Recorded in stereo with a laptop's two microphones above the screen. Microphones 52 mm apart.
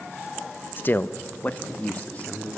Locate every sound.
0.8 s a man speaking: 40° left (ahead or behind), 0.7 m; by 2.6 s 25° left (ahead or behind), 3 m